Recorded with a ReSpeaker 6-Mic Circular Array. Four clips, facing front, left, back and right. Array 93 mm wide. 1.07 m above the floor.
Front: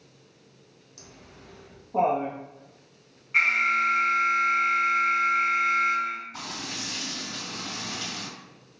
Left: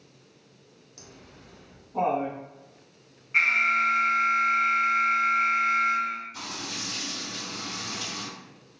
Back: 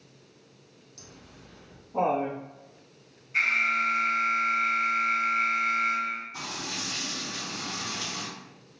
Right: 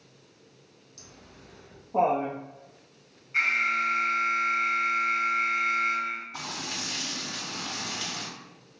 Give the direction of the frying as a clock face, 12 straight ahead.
2 o'clock.